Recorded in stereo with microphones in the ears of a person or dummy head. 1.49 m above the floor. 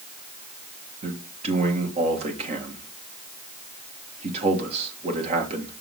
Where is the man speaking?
35° right (ahead or behind), 1.6 m.